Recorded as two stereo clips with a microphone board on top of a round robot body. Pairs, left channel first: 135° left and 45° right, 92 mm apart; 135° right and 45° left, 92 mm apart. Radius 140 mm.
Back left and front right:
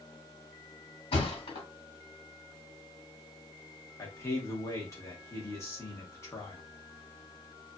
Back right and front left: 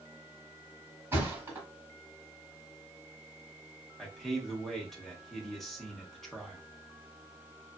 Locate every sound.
1.1 s a thud: 110° left, 1.5 m
4.0 s a man speaking: 140° left, 1.2 m